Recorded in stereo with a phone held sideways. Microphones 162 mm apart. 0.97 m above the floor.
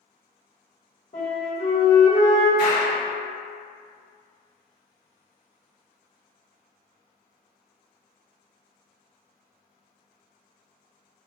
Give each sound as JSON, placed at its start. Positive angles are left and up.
{"t": 1.1, "sound": "a flute", "side_deg": 60, "distance_m": 1.4}
{"t": 2.6, "sound": "a clap", "side_deg": 75, "distance_m": 1.6}